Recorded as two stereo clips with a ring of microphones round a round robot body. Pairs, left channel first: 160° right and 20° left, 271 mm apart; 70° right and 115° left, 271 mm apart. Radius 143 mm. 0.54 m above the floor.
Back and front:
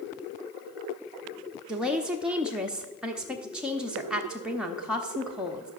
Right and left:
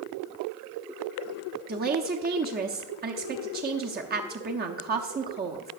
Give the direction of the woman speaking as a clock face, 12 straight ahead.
8 o'clock.